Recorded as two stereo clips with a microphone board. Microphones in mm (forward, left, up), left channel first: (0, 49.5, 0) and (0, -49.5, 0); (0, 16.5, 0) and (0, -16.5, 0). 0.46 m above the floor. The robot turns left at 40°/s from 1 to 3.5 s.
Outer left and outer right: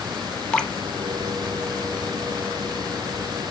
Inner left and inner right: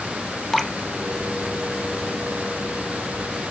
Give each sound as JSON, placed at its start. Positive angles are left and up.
{"t": 0.5, "sound": "dripping", "side_deg": 10, "distance_m": 1.1}